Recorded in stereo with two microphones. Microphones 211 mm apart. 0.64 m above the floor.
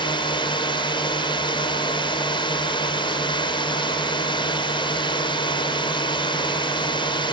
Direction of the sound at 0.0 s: 25° left (ahead or behind).